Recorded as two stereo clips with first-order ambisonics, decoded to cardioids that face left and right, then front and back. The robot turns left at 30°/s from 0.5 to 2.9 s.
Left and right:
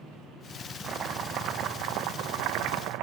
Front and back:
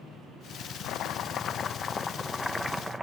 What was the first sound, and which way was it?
Chopping, 35° right.